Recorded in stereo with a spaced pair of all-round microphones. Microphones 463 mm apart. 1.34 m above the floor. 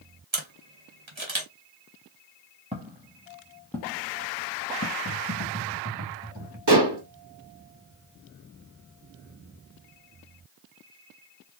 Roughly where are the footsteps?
Centre.